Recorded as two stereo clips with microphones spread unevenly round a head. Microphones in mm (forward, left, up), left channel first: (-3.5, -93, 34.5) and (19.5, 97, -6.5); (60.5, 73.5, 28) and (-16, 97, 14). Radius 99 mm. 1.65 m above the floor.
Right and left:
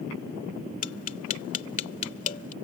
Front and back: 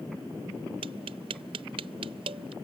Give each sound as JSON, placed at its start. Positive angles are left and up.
{"t": 0.8, "sound": "tapping", "azimuth_deg": -145}